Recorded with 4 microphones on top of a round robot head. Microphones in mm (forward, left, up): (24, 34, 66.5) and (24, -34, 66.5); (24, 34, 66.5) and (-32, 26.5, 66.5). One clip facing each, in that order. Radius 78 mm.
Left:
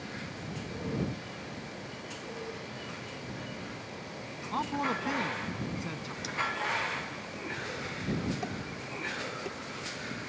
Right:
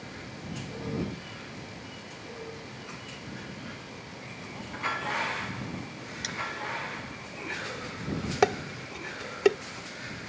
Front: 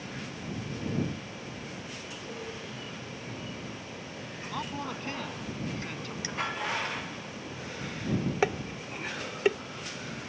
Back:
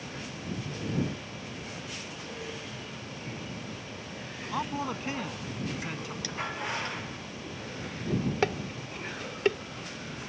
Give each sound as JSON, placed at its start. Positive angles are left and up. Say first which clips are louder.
{"t": 4.5, "sound": "a man speaking", "louder": "left 3 dB, back 4 dB", "azimuth_deg": 115}
{"t": 6.2, "sound": "cutlery clinking", "louder": "right 3 dB, front 1 dB", "azimuth_deg": -60}
{"t": 8.4, "sound": "dishes clattering", "louder": "right 11 dB, front 1 dB", "azimuth_deg": -75}